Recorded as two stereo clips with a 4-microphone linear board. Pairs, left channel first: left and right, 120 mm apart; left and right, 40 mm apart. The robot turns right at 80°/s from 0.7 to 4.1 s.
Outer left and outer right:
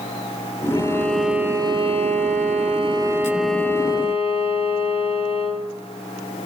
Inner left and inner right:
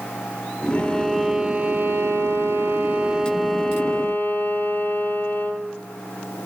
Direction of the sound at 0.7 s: 140° left.